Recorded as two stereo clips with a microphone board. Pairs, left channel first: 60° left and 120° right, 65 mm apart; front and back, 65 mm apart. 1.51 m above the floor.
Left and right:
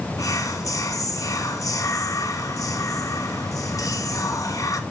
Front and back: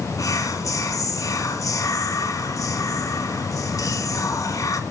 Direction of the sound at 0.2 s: 30° left.